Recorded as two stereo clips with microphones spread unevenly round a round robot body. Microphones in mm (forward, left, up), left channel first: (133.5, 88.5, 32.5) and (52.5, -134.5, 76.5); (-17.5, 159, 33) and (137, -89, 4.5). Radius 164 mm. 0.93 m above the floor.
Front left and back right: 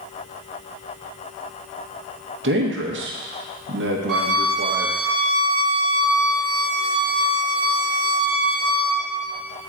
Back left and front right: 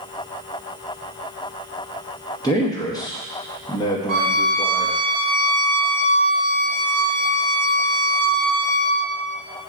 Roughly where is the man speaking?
Behind.